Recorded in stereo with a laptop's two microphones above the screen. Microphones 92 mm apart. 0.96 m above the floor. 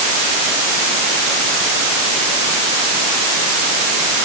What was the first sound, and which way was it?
Only background noise.